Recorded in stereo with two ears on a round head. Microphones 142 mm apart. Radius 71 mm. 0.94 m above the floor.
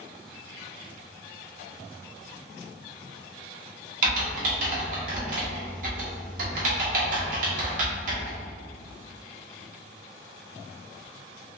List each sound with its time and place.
4.0 s typing on a keyboard: 55° right (ahead or behind), 0.9 m